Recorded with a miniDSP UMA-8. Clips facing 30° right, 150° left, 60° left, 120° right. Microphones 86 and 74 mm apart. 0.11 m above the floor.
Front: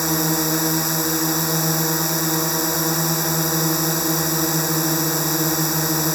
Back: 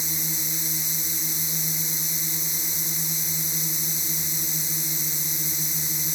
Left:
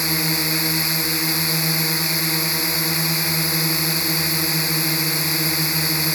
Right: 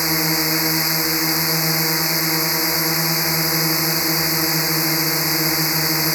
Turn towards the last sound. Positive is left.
turn(degrees=-50)